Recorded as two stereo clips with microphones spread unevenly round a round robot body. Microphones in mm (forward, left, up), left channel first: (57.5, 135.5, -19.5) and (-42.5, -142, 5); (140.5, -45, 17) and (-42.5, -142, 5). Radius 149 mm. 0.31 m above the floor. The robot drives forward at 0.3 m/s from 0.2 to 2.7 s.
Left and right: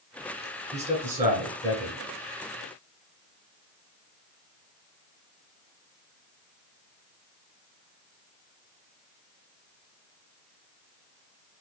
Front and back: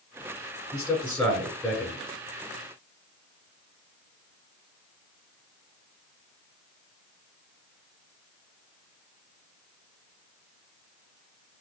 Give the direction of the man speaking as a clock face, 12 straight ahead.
2 o'clock.